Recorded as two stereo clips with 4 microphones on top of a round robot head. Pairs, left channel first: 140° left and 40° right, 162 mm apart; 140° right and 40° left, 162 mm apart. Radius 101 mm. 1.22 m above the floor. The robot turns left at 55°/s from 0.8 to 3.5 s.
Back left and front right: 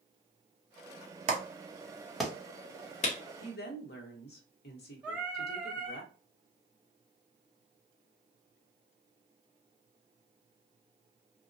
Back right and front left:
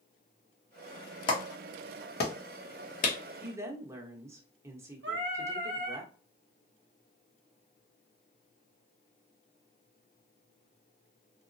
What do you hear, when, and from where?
1.3 s a clap: 80° right, 0.9 m; by 3.2 s 175° left, 0.9 m
3.4 s a woman speaking: 120° left, 1.0 m; by 6.0 s 115° left, 1.0 m
5.0 s singing: 40° left, 0.8 m